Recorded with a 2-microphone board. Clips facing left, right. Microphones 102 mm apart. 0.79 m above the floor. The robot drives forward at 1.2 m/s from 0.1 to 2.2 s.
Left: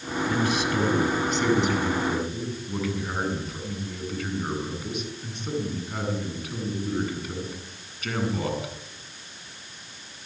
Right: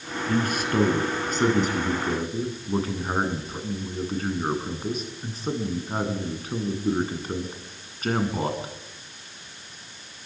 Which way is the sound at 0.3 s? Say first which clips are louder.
Right 1 dB; 50° right (ahead or behind).